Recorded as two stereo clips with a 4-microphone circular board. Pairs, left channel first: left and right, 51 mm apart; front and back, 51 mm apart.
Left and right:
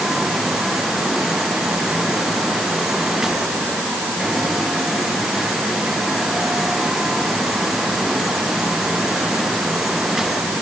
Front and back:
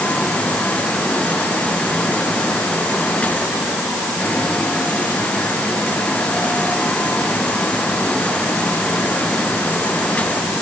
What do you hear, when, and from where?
Only background noise.